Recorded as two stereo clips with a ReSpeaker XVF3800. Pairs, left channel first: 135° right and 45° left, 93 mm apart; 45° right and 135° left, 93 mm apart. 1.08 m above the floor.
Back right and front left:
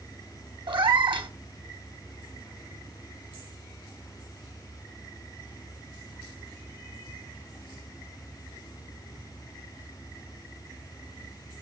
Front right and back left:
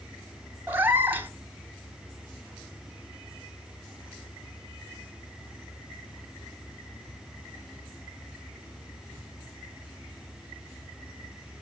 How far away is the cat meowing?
About 1.3 m.